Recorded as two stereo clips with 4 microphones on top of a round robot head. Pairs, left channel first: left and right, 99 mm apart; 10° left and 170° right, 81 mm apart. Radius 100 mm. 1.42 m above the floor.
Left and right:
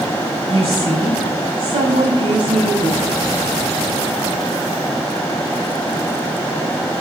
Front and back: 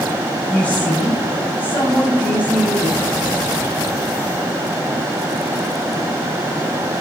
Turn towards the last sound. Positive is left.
turn(degrees=-55)